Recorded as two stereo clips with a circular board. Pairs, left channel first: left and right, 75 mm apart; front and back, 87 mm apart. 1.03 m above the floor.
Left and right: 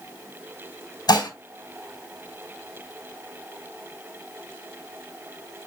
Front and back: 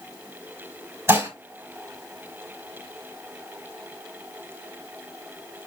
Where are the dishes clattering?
120° left, 3.5 m.